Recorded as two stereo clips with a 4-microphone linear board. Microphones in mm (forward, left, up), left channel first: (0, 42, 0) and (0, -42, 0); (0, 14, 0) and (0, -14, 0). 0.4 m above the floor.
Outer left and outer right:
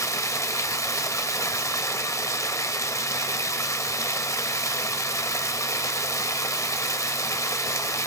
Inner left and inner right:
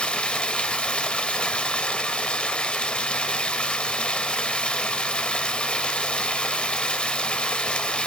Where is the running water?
35° left (ahead or behind), 0.9 m.